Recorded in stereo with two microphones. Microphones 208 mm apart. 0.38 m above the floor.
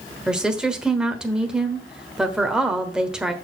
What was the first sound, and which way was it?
A woman speaking, 5° right (ahead or behind).